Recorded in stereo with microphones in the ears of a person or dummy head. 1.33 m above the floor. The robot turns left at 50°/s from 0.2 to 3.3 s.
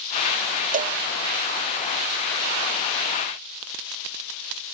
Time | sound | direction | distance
0.7 | a cowbell | 35° right (ahead or behind) | ?